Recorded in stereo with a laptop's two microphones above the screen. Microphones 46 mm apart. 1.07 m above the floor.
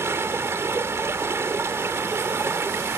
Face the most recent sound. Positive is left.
turn(degrees=-75)  # may be behind; listen again after turning